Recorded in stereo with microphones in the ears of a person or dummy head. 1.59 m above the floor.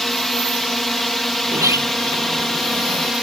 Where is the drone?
10° left (ahead or behind).